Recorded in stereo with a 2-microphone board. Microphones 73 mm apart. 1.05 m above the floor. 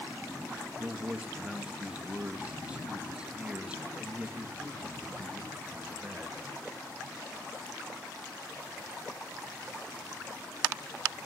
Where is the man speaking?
15° right (ahead or behind), 1.7 m.